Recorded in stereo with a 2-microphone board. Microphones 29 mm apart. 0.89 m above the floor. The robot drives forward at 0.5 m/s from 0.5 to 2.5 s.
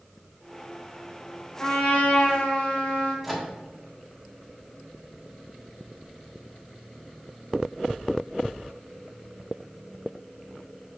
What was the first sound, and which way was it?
A trumpet, 60° left (ahead or behind).